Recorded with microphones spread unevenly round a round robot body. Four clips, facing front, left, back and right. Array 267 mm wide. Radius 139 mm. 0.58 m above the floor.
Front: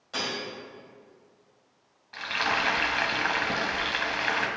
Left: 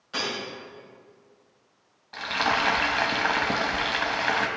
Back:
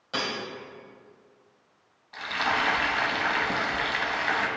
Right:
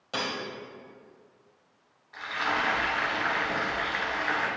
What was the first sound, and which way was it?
Cutlery clinking, 125° right.